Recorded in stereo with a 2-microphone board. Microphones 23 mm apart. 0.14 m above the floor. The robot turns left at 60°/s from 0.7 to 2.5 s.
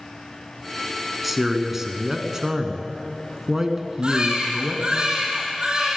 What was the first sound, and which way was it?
A man speaking, 5° right (ahead or behind).